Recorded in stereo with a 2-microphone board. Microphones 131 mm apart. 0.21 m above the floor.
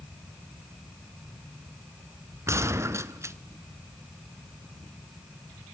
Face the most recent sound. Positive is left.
turn(degrees=-20)  # may be behind; listen again after turning